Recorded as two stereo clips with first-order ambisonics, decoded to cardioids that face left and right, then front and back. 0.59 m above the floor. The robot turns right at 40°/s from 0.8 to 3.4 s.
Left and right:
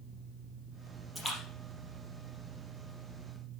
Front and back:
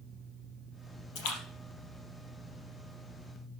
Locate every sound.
1.1 s a splash: straight ahead, 4.5 m; by 2.9 s 70° left, 4.5 m